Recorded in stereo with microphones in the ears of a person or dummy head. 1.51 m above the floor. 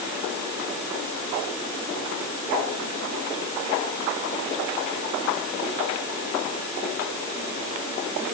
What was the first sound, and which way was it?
Only background noise.